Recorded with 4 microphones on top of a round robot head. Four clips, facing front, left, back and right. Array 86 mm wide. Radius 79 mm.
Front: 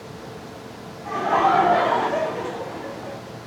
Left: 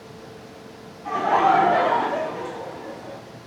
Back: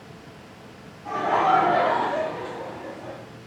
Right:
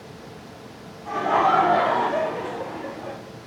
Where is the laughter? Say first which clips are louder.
Left 1 dB, front 2 dB; 80° left, 1.0 m; by 3.2 s 65° right, 1.0 m.